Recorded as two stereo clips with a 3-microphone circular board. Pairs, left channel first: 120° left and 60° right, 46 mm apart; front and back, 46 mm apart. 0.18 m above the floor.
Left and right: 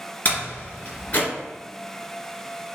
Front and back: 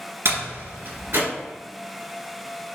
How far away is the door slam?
About 1.9 m.